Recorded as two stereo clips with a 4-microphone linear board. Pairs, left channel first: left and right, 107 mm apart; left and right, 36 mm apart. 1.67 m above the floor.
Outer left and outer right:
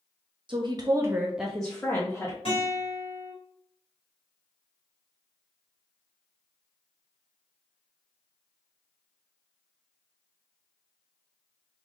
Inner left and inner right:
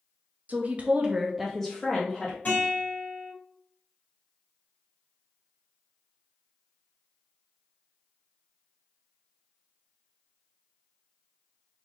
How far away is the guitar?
About 2 m.